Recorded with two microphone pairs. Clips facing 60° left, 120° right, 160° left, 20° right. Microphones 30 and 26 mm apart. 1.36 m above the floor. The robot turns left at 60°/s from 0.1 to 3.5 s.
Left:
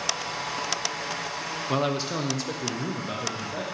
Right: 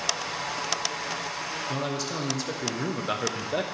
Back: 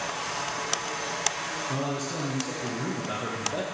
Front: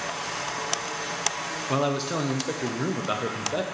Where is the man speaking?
20° left, 0.7 m; by 3.6 s 90° right, 0.7 m.